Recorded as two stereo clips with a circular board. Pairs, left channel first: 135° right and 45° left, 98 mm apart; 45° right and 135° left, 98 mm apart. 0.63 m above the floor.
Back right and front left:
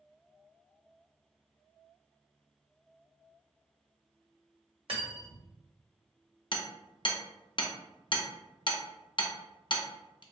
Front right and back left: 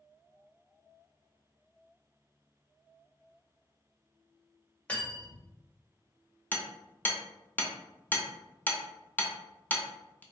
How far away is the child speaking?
I don't hear a child speaking.